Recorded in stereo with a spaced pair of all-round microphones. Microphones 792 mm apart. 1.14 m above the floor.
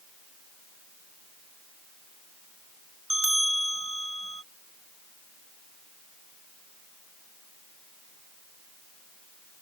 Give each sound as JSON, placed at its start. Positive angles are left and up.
{"t": 3.1, "sound": "a bell", "side_deg": -40}